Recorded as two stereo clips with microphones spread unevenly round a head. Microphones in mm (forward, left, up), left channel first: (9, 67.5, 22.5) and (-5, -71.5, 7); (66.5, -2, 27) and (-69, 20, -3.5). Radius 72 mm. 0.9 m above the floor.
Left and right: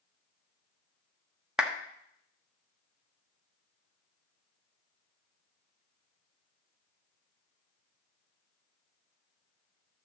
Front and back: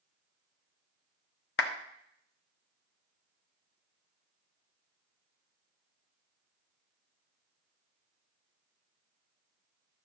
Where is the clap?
10° right, 1.2 m.